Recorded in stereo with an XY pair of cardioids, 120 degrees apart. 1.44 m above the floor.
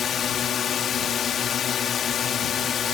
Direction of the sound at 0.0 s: 50° left.